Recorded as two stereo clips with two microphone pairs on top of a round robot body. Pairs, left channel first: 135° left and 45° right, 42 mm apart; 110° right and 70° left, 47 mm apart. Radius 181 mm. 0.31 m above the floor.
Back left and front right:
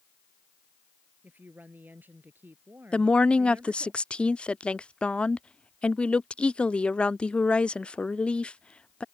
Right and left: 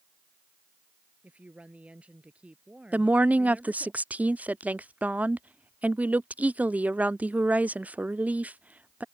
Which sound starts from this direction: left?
A woman speaking, at 2.9 s.